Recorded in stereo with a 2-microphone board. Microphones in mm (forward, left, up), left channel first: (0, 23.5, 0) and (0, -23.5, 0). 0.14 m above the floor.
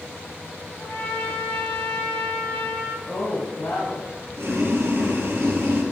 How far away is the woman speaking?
About 4 m.